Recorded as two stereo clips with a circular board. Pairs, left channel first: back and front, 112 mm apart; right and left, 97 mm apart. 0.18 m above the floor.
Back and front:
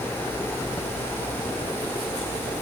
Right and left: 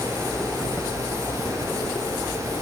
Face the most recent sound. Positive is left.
No sound to turn to.